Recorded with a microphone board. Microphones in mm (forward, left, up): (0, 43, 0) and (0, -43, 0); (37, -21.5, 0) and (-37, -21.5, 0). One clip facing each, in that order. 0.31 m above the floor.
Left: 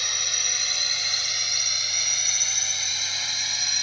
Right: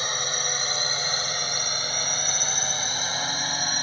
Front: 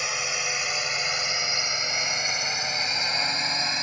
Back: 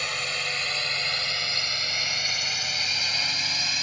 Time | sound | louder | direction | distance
0.0 | a drone | right 6 dB, front 1 dB | 75° right | ?